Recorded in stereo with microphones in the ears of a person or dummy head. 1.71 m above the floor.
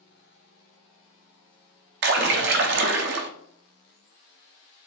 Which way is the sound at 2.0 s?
70° right (ahead or behind).